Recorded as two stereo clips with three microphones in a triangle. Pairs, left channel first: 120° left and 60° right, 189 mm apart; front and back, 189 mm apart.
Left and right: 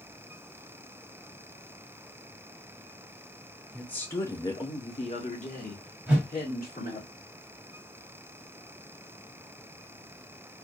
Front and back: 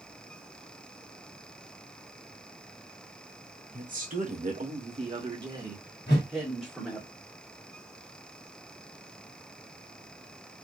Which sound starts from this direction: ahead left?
A whoosh, at 6.1 s.